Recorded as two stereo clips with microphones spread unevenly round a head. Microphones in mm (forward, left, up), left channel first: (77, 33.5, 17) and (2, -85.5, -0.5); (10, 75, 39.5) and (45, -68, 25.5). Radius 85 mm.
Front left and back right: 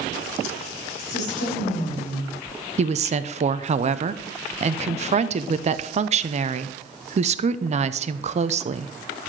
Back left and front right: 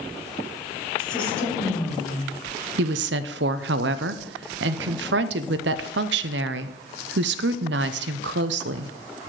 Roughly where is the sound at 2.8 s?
Right.